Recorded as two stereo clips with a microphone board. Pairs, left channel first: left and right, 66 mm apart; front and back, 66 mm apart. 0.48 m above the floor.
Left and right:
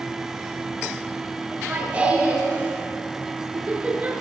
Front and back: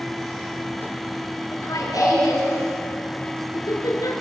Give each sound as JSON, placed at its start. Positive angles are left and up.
{"t": 1.5, "sound": "laughter", "azimuth_deg": -25, "distance_m": 6.5}